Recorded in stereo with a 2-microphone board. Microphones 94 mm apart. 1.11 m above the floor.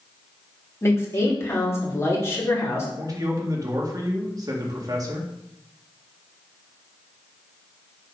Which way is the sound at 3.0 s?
40° right (ahead or behind).